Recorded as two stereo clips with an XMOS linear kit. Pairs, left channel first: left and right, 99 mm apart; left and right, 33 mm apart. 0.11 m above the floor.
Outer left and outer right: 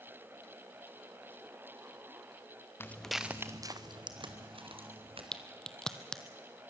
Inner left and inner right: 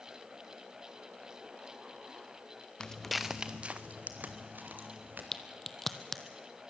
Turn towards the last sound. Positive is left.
turn(degrees=5)  # may be behind; listen again after turning